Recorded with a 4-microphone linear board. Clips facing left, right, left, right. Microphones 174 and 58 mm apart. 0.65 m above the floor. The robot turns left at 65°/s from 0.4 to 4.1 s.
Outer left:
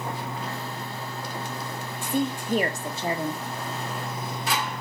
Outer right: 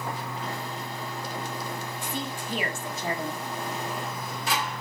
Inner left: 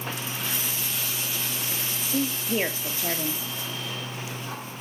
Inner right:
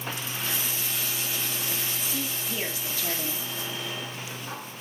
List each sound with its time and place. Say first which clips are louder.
2.0 s a woman speaking: outer left 12 dB, inner left 5 dB; 100° left, 1.3 m; by 3.4 s 10° left, 1.3 m